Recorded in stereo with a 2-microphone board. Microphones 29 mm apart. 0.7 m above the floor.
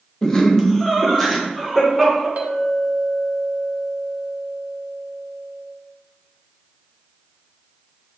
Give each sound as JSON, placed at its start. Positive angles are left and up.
{"t": 0.2, "sound": "laughter", "side_deg": 25, "distance_m": 0.7}
{"t": 2.4, "sound": "a clink", "side_deg": -65, "distance_m": 0.6}